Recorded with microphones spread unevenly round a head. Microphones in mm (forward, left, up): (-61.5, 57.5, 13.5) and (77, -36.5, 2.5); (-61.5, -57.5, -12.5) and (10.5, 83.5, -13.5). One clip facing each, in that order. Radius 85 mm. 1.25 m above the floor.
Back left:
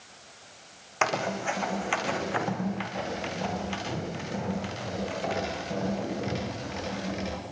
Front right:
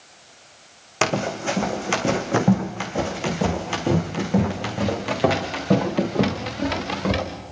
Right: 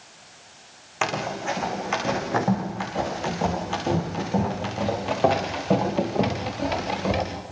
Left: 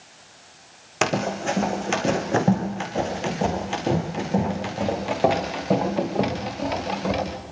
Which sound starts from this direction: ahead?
Running footsteps, at 1.0 s.